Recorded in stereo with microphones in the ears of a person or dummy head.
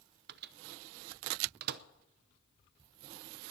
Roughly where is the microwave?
Right.